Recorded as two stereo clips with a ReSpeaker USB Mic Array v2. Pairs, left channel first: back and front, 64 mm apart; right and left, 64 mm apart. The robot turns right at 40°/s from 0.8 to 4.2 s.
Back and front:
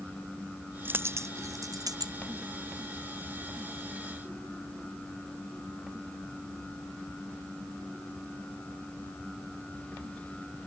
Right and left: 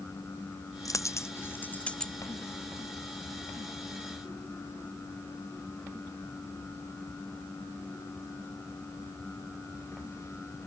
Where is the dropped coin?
60° right; by 2.1 s 10° right.